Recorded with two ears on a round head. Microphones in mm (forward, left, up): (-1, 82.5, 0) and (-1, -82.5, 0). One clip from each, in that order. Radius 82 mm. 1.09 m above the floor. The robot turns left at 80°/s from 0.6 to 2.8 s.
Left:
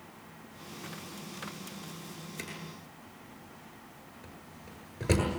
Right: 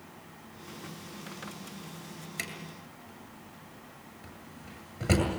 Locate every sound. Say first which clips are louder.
2.4 s a drawer: right 5 dB; 20° right (ahead or behind), 8 m; by 5.2 s 15° left (ahead or behind), 8 m